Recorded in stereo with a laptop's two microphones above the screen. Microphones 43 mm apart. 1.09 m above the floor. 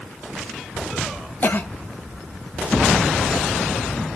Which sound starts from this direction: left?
A cough, at 1.4 s.